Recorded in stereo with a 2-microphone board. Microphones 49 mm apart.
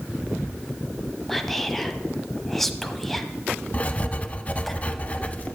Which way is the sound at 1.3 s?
5° left (ahead or behind).